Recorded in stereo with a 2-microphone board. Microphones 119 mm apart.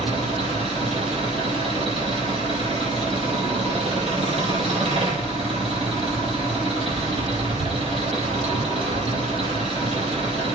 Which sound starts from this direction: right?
An engine running, at 0.0 s.